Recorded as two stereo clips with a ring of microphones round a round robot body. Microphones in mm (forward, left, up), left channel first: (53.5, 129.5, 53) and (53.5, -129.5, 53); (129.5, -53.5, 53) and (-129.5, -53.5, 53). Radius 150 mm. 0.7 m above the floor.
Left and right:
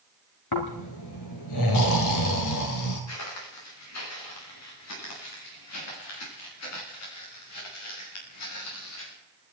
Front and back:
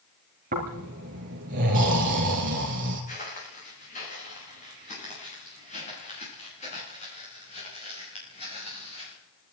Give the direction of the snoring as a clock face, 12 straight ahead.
8 o'clock.